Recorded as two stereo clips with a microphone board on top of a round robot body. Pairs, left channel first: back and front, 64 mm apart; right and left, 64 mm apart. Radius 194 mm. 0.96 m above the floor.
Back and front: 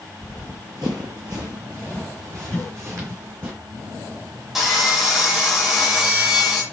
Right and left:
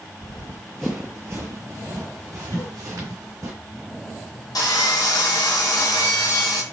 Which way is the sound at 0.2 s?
90° right.